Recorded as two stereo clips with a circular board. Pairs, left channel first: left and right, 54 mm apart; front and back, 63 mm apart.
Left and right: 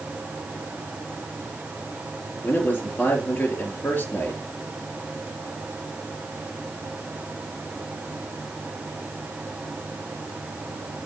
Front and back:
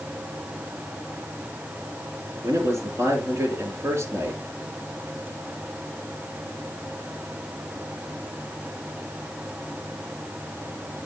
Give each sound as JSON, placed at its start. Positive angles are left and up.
{"t": 2.4, "sound": "a man speaking", "azimuth_deg": 135, "distance_m": 4.0}